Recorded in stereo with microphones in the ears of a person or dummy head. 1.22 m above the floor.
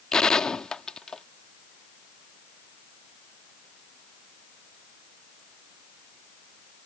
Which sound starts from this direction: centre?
A gunshot, at 0.1 s.